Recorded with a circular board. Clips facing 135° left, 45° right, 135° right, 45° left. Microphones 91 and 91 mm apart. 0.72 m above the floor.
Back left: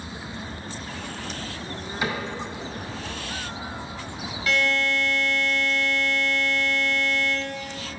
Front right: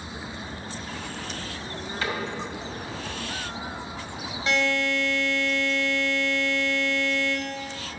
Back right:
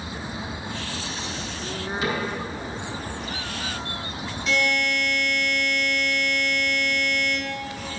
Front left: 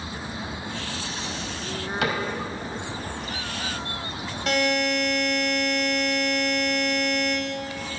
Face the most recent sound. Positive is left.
turn(degrees=20)